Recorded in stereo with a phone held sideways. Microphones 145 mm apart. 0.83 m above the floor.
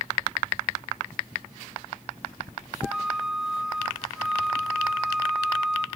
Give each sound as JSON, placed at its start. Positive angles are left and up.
{"t": 2.8, "sound": "a flute", "side_deg": -5, "distance_m": 2.5}